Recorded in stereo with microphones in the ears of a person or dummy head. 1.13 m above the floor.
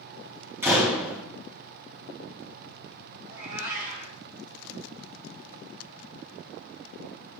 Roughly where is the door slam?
Centre.